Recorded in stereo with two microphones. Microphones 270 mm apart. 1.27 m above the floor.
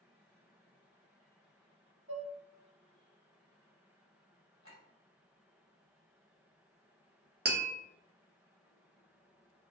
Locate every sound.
2.1 s dishes clattering: 50° right (ahead or behind), 1.4 m
4.6 s a clink: 55° right (ahead or behind), 1.3 m
7.5 s tapping: 40° right (ahead or behind), 0.6 m